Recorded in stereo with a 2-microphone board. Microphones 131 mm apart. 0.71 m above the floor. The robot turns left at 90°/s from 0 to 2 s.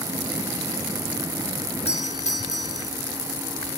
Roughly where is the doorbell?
Left.